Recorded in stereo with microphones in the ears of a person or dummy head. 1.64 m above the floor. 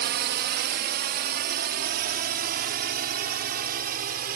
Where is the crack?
No crack in this recording.